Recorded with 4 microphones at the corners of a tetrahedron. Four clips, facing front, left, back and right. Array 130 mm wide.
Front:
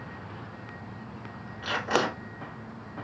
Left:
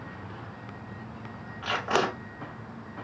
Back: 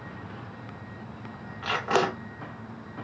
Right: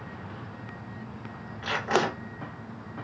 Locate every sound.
1.6 s tape being pulled: 150° left, 1.1 m